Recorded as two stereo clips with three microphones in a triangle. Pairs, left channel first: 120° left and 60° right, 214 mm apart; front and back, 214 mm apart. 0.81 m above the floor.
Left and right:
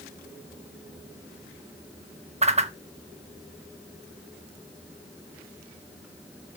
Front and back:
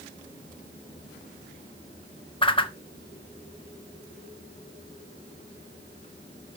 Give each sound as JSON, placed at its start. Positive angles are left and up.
{"t": 2.4, "sound": "a whoosh", "azimuth_deg": -40, "distance_m": 0.6}